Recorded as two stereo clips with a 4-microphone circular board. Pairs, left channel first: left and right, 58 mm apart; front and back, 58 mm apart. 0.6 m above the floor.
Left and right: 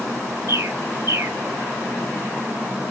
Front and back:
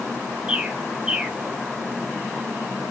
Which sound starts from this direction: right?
A bird, at 0.5 s.